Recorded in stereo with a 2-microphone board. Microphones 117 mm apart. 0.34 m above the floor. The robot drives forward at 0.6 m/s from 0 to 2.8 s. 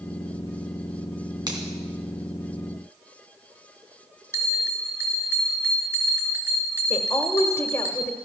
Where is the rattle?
No rattle in this recording.